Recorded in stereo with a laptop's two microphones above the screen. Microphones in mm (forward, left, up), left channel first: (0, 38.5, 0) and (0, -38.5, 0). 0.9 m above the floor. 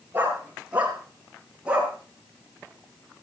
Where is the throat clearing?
No throat clearing in this recording.